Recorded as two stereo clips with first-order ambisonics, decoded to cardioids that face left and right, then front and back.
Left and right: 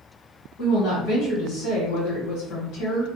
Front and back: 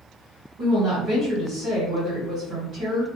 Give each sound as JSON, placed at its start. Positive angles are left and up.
{"t": 0.6, "sound": "a woman speaking", "azimuth_deg": 125, "distance_m": 1.2}